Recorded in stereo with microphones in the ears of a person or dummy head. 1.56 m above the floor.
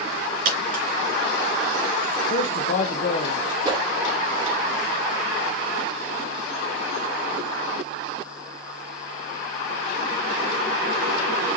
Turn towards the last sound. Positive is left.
turn(degrees=-25)  # may be behind; listen again after turning